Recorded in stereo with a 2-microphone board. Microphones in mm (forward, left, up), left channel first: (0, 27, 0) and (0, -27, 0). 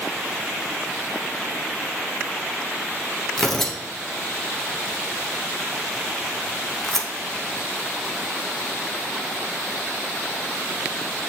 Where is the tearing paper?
5° left (ahead or behind), 0.8 m.